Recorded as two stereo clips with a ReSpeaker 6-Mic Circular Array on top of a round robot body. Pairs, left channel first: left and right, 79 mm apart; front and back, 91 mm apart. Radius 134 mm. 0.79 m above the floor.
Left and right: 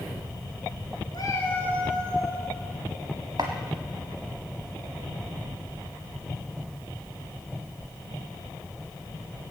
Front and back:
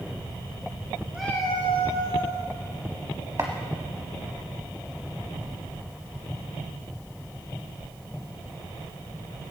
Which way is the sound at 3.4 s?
130° right.